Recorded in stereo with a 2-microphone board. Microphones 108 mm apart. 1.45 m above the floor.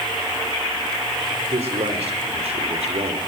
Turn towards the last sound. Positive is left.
turn(degrees=-65)  # may be behind; listen again after turning